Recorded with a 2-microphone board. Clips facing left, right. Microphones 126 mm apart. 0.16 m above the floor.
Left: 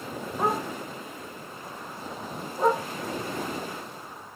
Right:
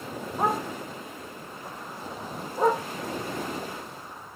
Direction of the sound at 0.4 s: 35° right (ahead or behind).